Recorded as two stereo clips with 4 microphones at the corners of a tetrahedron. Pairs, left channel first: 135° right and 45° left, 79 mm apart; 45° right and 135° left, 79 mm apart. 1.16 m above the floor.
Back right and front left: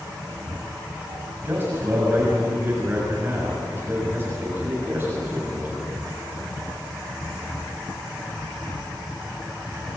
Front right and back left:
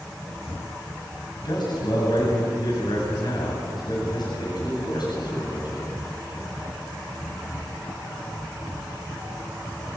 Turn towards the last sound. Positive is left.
turn(degrees=-20)